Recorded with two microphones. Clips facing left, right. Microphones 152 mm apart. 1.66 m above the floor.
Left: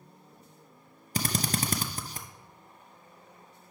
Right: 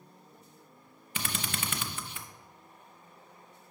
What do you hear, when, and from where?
1.1 s a drill: 40° left (ahead or behind), 0.5 m